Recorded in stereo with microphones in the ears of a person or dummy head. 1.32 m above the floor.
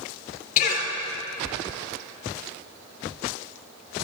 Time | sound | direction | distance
0.6 | a cough | 50° left (ahead or behind) | 3.5 m